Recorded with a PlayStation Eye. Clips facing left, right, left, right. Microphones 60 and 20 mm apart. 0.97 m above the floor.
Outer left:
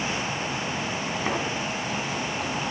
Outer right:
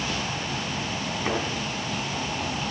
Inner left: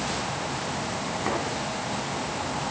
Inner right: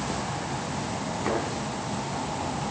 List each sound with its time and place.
1.2 s a thud: 5° left (ahead or behind), 4 m